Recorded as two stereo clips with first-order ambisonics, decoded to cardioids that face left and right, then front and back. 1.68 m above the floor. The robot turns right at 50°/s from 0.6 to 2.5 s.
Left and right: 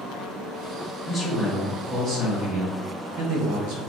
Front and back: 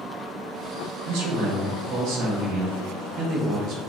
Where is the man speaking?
165° left, 1.5 m; by 3.8 s 120° right, 1.5 m.